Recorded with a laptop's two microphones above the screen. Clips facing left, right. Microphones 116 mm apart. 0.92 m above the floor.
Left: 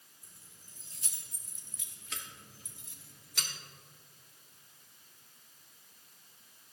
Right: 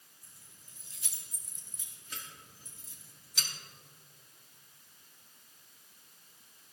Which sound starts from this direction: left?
Keys jangling, at 0.2 s.